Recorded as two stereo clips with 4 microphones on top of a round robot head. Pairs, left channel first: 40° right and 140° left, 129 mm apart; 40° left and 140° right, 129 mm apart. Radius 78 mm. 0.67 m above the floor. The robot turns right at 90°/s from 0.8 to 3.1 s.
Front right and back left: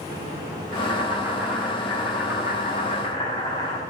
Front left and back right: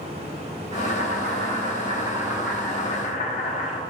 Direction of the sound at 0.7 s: 165° left.